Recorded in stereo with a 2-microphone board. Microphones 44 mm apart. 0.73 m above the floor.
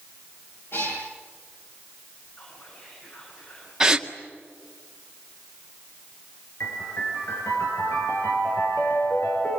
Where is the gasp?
15° right (ahead or behind), 1.7 m.